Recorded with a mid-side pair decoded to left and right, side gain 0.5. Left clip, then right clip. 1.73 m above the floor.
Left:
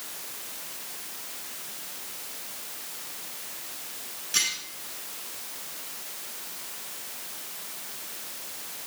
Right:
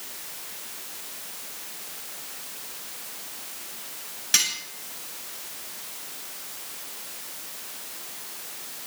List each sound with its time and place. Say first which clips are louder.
4.3 s cutlery clinking: right 3 dB; 60° right, 8 m